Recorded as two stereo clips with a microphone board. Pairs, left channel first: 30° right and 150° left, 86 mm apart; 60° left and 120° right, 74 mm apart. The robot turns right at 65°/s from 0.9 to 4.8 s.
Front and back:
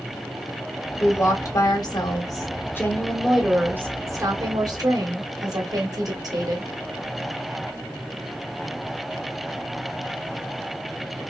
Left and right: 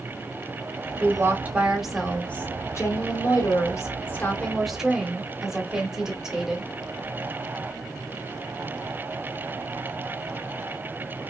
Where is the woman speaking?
90° right, 1.1 m; by 6.7 s 160° left, 1.1 m.